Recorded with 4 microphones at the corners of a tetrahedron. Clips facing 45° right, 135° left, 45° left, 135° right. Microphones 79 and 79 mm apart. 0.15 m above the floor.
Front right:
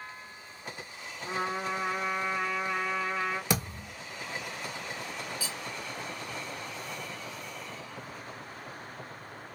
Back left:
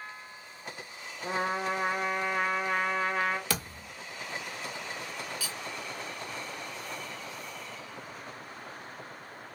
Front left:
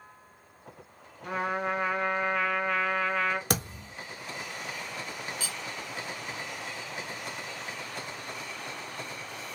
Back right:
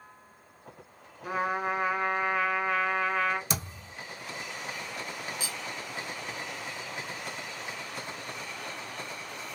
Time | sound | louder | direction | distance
1.2 | a trumpet | back left 2 dB, back right 1 dB | 145° left | 0.7 m
3.5 | a thud | front right 4 dB, front left 4 dB | 25° left | 0.9 m
5.4 | cutlery clinking | front right 1 dB, even | 80° right | 0.9 m